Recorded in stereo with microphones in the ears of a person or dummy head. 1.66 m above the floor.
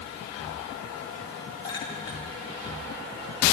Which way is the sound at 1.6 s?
25° left (ahead or behind).